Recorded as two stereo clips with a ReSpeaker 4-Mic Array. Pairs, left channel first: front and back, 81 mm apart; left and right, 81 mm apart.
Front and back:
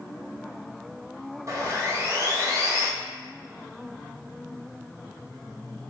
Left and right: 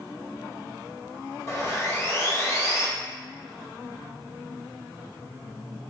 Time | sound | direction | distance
1.5 | sawing | 135° left | 0.8 m